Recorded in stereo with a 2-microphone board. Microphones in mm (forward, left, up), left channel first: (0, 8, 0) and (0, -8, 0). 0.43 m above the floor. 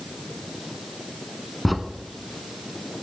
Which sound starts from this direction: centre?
A crack, at 1.6 s.